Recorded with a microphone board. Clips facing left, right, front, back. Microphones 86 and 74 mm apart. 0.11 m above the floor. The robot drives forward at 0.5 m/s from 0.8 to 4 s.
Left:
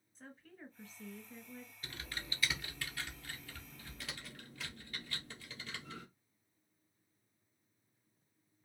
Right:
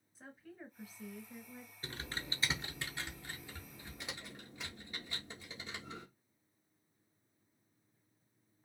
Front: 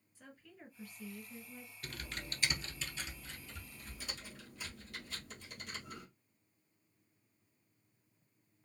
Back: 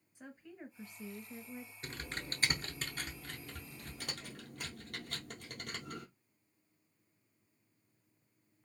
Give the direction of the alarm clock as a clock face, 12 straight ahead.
I don't hear an alarm clock.